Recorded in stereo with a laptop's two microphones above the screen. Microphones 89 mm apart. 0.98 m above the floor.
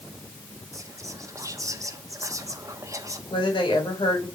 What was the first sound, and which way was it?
Whispering, 35° right (ahead or behind).